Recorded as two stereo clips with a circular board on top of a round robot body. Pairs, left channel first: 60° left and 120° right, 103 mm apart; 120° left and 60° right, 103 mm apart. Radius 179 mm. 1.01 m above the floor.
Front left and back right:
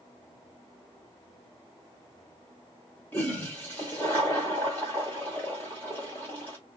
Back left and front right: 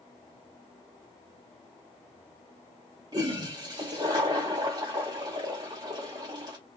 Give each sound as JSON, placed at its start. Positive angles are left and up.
{"t": 3.1, "sound": "a toilet flushing", "azimuth_deg": -10, "distance_m": 0.9}